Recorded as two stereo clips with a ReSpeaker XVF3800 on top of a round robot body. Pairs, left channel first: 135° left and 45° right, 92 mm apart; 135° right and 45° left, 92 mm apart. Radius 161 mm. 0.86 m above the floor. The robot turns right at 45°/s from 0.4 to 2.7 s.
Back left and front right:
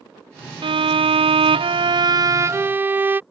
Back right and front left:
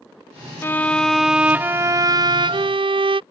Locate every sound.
0.6 s a violin: 70° right; by 3.2 s 25° left